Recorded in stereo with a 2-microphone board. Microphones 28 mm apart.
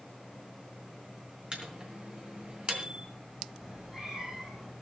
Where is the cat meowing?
20° right (ahead or behind), 7 m.